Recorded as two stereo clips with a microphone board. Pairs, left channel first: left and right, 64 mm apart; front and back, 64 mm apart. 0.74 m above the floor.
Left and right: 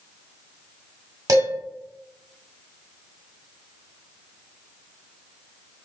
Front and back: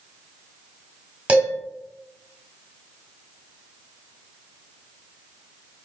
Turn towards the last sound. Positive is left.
turn(degrees=-115)